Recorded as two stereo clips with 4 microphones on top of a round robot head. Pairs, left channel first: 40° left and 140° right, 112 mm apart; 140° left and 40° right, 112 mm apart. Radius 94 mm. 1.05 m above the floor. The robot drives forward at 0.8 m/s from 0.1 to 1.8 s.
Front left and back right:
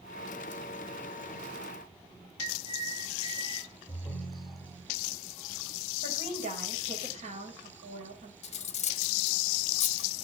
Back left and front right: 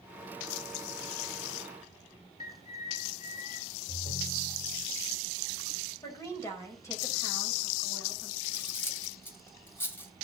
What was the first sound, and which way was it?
A bird, 170° left.